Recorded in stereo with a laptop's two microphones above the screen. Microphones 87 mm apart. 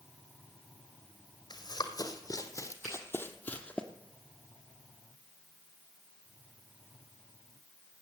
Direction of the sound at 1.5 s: 55° left (ahead or behind).